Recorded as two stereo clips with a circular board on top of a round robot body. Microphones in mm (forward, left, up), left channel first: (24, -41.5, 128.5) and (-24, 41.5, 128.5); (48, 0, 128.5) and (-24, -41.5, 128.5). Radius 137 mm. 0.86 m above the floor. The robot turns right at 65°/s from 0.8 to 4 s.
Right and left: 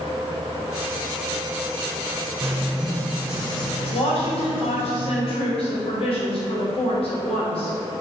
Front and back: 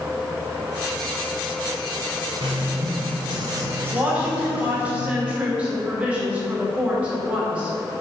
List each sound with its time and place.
2.4 s writing: straight behind, 1.3 m; by 4.9 s 75° right, 1.3 m
3.9 s a woman speaking: 80° right, 2.5 m; by 7.7 s 75° right, 2.5 m